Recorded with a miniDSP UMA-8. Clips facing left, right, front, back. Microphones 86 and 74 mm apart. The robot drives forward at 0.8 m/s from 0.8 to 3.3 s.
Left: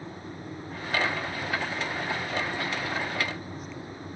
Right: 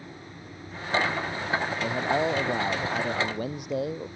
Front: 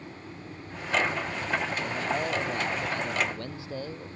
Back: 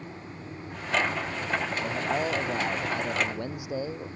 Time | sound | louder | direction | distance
1.8 | a man speaking | right 6 dB, back 1 dB | 100° right | ?